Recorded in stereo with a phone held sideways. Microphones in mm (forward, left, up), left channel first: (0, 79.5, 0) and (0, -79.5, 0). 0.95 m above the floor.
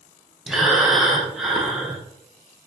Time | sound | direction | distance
0.5 | breathing | centre (ahead or behind) | 0.5 m